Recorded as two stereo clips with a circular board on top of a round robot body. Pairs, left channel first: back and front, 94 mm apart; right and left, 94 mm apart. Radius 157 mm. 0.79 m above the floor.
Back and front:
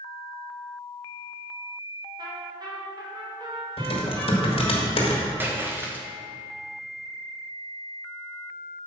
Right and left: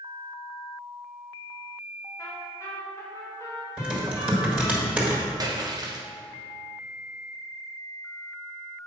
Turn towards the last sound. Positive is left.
turn(degrees=65)